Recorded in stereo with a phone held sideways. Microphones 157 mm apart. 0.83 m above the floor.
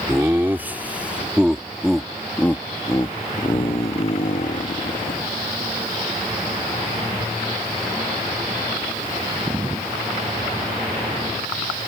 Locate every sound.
0.1 s laughter: 15° right (ahead or behind); by 5.2 s 55° left (ahead or behind)